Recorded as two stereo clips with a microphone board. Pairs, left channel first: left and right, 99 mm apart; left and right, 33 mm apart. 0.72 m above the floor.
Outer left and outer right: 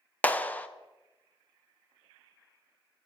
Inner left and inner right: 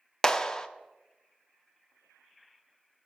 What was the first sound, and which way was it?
A clap, 15° left (ahead or behind).